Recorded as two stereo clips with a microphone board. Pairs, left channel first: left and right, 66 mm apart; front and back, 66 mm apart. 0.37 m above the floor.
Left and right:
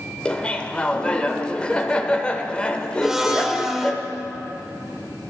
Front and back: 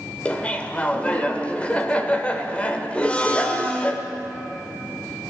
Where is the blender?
15° right, 1.0 m.